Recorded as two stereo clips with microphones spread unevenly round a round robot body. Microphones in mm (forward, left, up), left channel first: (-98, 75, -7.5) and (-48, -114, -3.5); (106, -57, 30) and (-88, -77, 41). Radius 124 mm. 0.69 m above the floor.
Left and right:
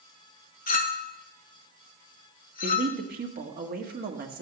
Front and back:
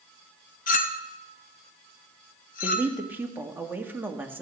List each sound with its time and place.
0.7 s a clink: 50° left, 0.7 m
2.6 s a man speaking: 95° right, 1.6 m